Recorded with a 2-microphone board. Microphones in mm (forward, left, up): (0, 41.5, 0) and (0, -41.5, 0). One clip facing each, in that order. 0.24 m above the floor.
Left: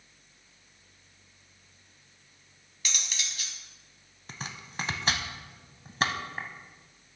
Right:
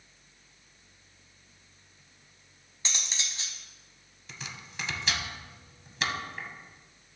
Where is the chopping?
40° left (ahead or behind), 0.7 m.